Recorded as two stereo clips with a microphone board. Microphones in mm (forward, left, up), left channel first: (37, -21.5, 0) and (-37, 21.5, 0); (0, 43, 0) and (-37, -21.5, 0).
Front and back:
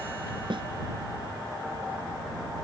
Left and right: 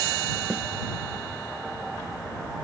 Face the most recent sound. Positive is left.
turn(degrees=165)